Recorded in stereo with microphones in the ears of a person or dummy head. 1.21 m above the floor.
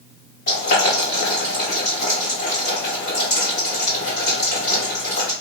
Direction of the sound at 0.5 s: 50° left (ahead or behind).